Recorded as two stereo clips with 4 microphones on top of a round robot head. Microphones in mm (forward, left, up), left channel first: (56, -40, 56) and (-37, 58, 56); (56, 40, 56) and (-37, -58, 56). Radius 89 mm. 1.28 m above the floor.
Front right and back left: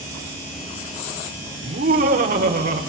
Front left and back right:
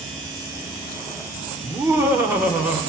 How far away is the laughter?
About 4 m.